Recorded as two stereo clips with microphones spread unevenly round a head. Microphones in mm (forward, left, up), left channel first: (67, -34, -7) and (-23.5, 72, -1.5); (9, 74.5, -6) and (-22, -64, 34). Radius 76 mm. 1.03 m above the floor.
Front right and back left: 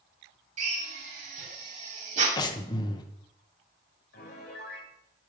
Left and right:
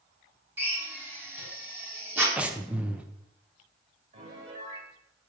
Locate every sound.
0.6 s a drill: straight behind, 3 m
2.4 s breathing: 5° right, 1.0 m
4.1 s a piano: 55° right, 2.5 m